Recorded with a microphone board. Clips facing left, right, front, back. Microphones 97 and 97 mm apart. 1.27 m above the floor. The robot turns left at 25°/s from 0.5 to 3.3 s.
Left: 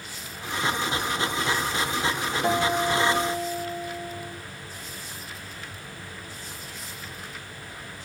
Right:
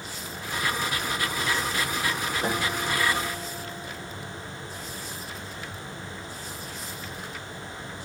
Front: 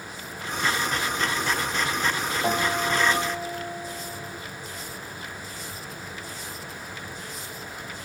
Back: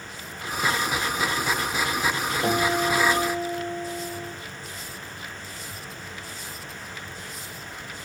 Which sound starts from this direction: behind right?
A guitar, at 2.4 s.